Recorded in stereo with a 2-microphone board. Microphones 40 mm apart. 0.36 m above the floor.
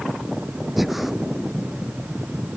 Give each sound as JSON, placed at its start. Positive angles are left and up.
{"t": 0.8, "sound": "breathing", "side_deg": -5}